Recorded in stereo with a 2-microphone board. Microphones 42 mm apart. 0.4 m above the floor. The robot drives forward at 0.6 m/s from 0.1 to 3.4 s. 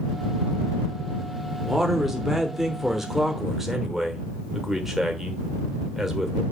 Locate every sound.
1.6 s a man speaking: 5° right (ahead or behind), 0.9 m